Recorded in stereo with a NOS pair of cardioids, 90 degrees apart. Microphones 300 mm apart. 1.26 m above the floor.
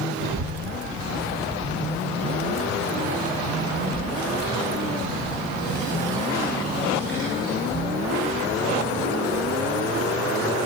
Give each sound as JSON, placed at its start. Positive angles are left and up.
{"t": 0.2, "sound": "a child speaking", "azimuth_deg": -35, "distance_m": 2.5}